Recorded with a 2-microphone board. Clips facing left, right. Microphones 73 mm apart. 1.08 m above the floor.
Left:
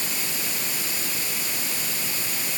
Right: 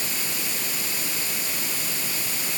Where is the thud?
No thud in this recording.